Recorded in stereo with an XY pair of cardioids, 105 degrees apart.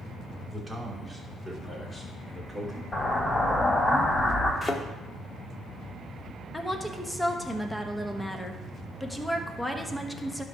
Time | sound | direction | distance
0.5 | a man speaking | 10° right | 3 m
2.9 | an explosion | 30° left | 3.5 m
4.6 | a thud | 25° left | 1.2 m
6.5 | a woman speaking | 10° left | 1.1 m